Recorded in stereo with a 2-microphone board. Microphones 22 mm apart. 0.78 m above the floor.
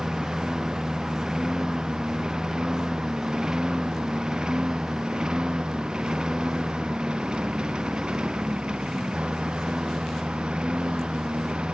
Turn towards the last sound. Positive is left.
turn(degrees=-50)  # may be behind; listen again after turning